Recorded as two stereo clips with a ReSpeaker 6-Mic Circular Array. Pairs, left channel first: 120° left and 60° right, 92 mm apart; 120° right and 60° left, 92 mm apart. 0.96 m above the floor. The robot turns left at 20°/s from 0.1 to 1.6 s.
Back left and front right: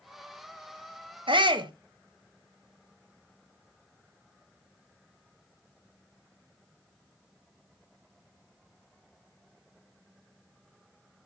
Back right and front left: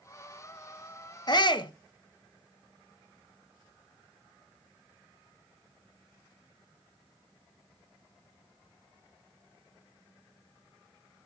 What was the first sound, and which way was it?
A shout, 85° right.